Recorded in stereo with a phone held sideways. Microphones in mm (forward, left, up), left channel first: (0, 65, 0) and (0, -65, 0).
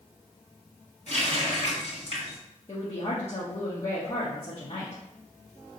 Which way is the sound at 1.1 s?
60° left (ahead or behind).